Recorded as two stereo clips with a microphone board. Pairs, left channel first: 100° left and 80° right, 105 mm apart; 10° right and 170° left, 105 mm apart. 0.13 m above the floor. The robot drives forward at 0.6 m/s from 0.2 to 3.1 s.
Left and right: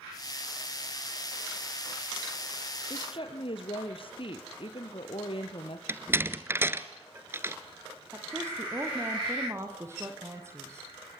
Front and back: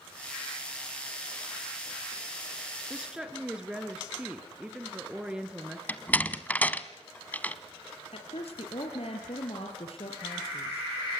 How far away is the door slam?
About 1.0 m.